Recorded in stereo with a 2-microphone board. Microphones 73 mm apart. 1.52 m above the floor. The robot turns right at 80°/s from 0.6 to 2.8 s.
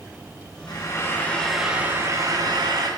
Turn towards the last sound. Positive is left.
turn(degrees=-80)